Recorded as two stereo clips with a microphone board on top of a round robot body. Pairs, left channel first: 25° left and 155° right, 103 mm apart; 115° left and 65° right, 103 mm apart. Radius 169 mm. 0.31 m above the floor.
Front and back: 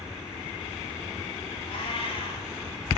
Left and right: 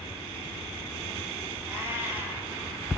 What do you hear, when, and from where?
1.7 s a cat meowing: straight ahead, 8 m